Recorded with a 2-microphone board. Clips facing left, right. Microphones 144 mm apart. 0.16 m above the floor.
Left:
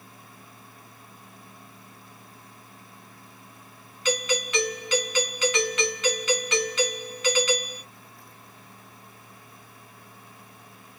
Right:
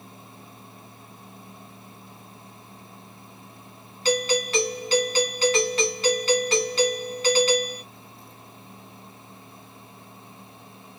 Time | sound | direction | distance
4.0 | a doorbell | 35° right (ahead or behind) | 1.7 m